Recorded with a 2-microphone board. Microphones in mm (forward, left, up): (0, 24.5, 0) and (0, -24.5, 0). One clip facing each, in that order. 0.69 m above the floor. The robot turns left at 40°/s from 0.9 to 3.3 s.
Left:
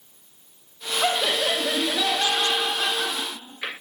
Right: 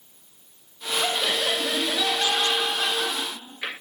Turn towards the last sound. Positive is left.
turn(degrees=10)  # may be behind; listen again after turning